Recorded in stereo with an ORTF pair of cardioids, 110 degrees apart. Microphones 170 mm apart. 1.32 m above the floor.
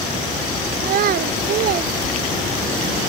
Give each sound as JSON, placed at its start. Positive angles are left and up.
{"t": 0.8, "sound": "a child speaking", "azimuth_deg": -60}